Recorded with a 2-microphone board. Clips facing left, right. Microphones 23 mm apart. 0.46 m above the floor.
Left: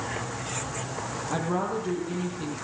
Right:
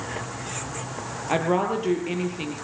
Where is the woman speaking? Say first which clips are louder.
Right 6 dB; 70° right (ahead or behind), 9 m.